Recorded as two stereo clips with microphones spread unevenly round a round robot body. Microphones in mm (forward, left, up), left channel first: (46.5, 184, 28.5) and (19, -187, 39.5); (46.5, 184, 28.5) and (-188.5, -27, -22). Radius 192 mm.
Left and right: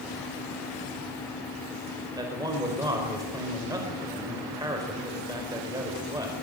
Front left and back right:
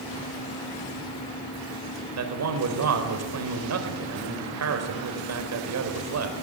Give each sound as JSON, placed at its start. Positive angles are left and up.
{"t": 2.2, "sound": "a man speaking", "azimuth_deg": -175, "distance_m": 4.5}